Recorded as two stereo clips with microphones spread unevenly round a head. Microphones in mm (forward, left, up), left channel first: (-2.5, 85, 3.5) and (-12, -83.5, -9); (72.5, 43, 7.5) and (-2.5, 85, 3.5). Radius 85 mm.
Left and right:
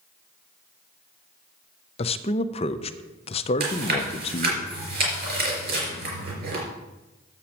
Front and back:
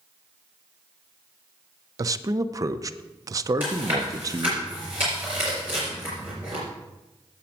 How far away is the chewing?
About 4.5 m.